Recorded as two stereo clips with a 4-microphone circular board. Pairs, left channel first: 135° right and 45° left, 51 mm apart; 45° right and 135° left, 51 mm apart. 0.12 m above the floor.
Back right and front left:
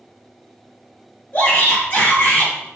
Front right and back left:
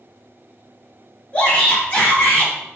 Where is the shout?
100° right, 2 m.